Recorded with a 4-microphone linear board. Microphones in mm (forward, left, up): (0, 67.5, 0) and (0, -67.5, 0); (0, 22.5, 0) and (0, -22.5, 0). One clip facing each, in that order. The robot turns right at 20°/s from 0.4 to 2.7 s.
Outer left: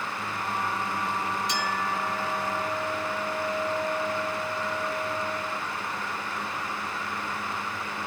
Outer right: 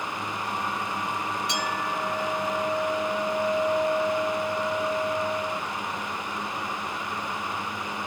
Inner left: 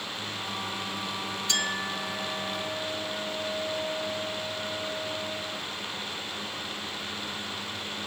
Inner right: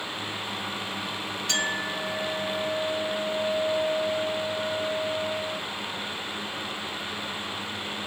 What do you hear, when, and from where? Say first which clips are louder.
1.5 s a clink: even, inner right 2 dB; 65° right (ahead or behind), 1.7 m; by 5.6 s 45° right (ahead or behind), 1.7 m